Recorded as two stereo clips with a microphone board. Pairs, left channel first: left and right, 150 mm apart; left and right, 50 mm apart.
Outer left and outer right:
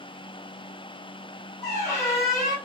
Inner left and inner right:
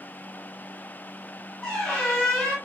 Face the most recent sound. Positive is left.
turn(degrees=20)  # may be behind; listen again after turning